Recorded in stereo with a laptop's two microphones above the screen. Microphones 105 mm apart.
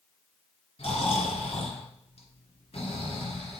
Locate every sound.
0.8 s snoring: 65° left (ahead or behind), 2.5 m